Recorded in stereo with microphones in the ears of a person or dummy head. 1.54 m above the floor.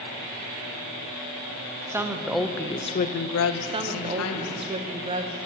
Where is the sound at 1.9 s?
15° right (ahead or behind), 1.0 m; by 4.7 s 70° left (ahead or behind), 1.4 m.